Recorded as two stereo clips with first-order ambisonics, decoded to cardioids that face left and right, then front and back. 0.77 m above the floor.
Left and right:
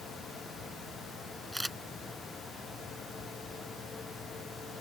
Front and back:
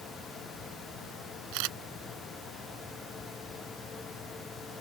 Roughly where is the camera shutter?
Behind.